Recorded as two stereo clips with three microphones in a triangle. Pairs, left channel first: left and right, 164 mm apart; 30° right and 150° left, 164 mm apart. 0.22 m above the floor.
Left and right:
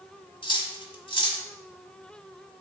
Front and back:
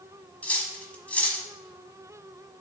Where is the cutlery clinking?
45° left, 1.0 m.